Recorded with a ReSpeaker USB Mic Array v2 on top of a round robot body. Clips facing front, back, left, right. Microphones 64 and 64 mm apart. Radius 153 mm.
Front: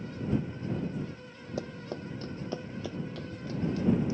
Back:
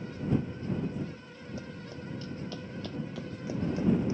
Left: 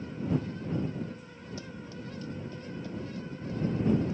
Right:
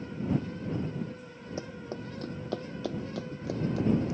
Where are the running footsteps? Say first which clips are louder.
Front 8 dB, right 6 dB; 30° right; by 4.2 s 120° right.